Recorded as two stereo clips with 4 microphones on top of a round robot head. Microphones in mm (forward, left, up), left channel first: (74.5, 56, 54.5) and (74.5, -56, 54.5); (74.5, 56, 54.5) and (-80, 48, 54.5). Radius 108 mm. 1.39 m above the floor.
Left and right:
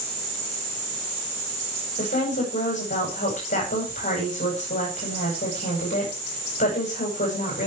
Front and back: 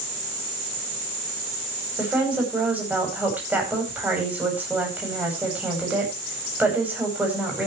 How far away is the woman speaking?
About 9.5 m.